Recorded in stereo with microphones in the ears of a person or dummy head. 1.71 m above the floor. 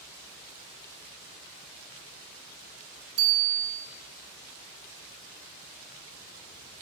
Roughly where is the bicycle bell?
Right.